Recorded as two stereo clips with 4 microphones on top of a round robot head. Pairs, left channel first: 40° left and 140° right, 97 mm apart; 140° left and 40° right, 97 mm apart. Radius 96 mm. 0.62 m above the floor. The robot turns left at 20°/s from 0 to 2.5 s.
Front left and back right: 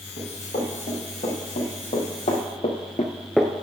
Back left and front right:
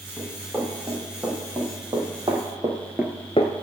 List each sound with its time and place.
0.2 s running footsteps: 50° left, 4.5 m; by 3.5 s 150° left, 0.7 m